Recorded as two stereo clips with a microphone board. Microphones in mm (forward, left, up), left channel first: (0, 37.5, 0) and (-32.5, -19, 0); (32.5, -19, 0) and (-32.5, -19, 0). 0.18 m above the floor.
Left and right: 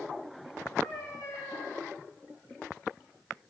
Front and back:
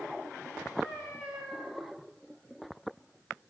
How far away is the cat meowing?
About 9 m.